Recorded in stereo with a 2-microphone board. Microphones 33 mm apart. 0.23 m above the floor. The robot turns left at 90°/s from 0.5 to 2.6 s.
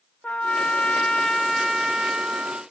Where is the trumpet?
110° left, 0.6 m; by 2.6 s 80° right, 0.6 m.